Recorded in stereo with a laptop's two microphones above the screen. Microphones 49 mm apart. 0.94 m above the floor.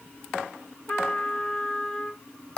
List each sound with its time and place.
0.9 s a trumpet: 30° left (ahead or behind), 0.5 m